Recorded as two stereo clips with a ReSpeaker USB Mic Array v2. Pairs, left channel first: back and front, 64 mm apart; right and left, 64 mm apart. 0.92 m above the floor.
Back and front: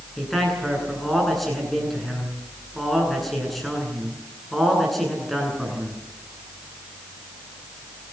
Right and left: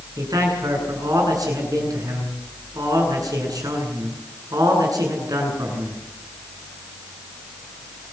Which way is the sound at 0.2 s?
90° left.